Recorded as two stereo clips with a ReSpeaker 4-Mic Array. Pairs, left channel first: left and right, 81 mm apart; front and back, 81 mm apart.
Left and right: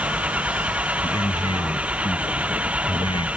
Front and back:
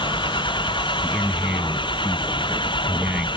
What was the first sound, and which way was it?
An engine running, 15° right.